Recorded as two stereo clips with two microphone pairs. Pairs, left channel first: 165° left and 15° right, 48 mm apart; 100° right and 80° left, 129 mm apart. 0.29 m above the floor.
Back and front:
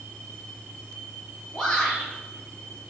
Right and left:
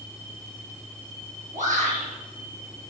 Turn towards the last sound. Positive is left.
turn(degrees=85)